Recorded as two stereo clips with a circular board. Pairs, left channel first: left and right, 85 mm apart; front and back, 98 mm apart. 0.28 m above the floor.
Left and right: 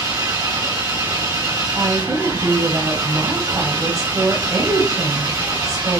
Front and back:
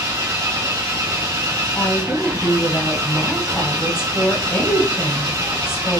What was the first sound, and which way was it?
An engine running, 130° right.